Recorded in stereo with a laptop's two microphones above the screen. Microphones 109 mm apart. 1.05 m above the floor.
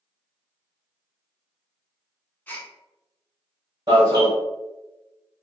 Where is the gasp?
15° left (ahead or behind), 0.7 m.